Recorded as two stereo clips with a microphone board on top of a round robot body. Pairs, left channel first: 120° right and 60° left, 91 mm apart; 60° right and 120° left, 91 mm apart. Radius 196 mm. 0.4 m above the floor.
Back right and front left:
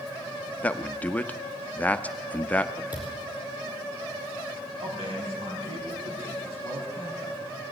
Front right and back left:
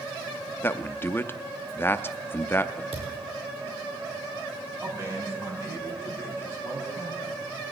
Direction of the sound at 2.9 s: 135° left.